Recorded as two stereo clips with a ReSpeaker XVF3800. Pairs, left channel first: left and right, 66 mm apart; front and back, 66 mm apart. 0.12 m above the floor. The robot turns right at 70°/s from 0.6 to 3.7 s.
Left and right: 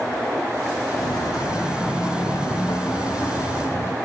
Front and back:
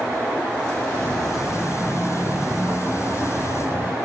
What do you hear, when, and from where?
0.9 s footsteps: 65° left, 1.5 m; by 4.0 s 130° left, 1.3 m